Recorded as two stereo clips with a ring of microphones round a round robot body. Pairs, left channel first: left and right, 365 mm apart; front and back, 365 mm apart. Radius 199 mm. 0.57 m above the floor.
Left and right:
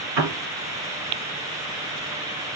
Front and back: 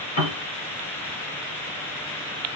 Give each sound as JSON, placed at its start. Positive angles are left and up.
{"t": 0.2, "sound": "a piano", "azimuth_deg": -75, "distance_m": 3.5}